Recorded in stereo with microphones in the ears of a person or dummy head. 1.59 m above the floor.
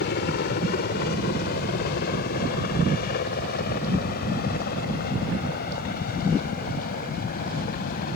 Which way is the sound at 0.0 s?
50° left (ahead or behind).